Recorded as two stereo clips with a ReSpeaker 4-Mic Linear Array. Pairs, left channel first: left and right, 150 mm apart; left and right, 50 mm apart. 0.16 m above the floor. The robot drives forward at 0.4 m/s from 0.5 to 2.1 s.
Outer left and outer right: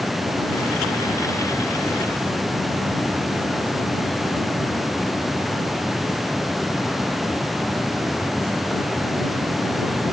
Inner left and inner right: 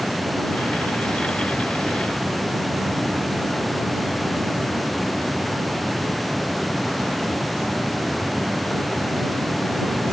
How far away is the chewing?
I don't hear chewing.